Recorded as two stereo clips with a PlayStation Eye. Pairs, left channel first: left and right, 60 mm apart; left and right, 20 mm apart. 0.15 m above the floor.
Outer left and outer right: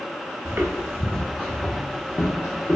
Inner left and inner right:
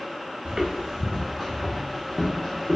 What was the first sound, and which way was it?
Footsteps, 40° right (ahead or behind).